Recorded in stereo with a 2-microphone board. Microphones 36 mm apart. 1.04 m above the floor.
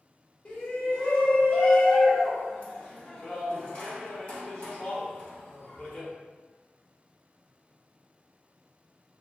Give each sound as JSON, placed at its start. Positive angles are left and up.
{"t": 0.5, "sound": "a shout", "side_deg": 30, "distance_m": 0.8}